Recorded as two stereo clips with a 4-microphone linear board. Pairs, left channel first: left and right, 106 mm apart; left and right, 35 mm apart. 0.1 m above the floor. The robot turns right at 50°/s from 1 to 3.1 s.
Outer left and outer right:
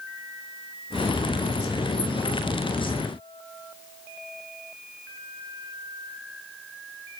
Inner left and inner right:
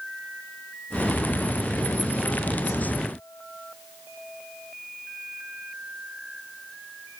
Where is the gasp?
No gasp in this recording.